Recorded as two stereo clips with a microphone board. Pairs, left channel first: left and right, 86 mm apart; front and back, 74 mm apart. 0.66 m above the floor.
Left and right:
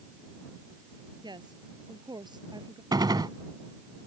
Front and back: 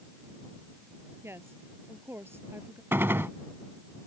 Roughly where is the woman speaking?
Behind right.